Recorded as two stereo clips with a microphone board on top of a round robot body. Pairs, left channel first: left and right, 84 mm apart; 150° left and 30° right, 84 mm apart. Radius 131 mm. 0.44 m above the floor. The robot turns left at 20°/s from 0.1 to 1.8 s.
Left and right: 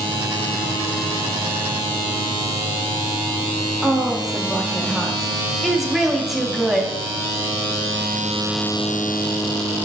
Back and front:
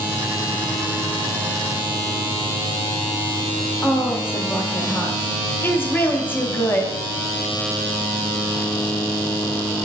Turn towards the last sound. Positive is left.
turn(degrees=-175)